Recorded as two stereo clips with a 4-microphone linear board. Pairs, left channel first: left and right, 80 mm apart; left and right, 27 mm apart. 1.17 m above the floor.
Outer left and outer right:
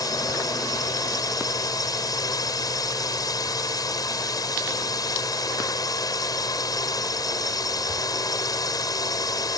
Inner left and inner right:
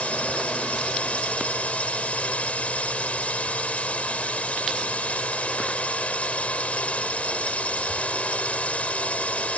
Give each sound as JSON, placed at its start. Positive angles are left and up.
{"t": 0.0, "sound": "a drone", "side_deg": 55}